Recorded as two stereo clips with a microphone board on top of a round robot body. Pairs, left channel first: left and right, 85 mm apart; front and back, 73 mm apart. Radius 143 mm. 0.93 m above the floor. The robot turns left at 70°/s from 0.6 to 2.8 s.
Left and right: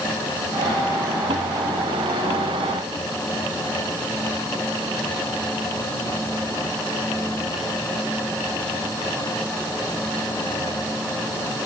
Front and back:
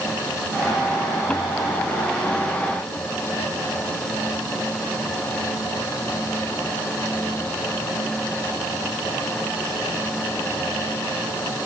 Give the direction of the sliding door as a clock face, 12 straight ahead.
I don't hear a sliding door.